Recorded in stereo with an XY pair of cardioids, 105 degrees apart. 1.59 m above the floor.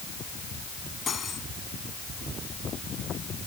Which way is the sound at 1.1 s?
40° left.